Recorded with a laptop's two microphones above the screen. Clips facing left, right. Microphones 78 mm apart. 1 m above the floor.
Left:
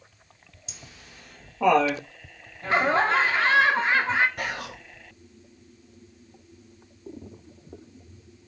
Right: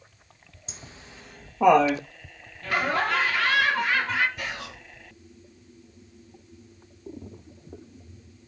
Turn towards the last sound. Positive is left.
turn(degrees=55)  # may be behind; listen again after turning